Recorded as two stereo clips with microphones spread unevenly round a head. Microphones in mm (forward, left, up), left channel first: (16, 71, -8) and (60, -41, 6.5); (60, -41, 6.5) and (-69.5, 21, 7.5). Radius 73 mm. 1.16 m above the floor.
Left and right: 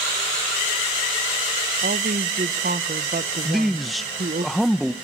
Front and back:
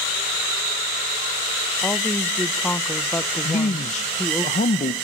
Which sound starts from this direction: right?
A woman speaking, at 1.8 s.